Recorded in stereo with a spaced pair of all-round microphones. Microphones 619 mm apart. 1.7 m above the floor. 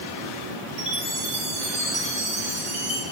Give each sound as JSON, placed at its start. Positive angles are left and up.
{"t": 0.8, "sound": "a chime", "side_deg": -75, "distance_m": 5.0}